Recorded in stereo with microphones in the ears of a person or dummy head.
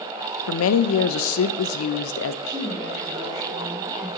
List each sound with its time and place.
0.5 s a woman speaking: 65° left (ahead or behind), 0.6 m
2.5 s a woman speaking: 85° left, 5.5 m